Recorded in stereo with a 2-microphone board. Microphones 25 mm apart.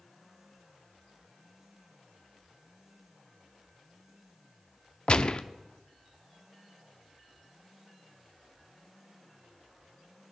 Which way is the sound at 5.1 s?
40° left (ahead or behind).